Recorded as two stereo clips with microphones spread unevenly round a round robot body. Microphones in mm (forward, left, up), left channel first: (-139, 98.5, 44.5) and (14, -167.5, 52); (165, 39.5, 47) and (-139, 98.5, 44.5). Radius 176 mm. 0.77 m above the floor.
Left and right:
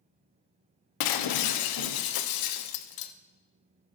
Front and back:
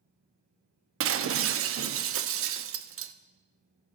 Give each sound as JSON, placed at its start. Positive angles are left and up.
{"t": 1.0, "sound": "breaking glass", "azimuth_deg": 120, "distance_m": 0.7}